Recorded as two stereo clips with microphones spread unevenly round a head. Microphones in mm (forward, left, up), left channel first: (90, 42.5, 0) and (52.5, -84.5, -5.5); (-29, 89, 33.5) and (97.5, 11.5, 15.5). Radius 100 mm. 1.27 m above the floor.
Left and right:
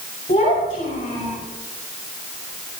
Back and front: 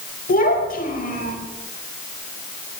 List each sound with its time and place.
0.3 s a child speaking: 130° left, 5.5 m